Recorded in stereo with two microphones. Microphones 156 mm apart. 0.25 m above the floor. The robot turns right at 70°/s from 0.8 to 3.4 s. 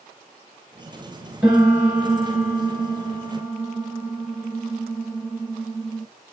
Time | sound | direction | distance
1.4 | a piano | 10° right | 2.5 m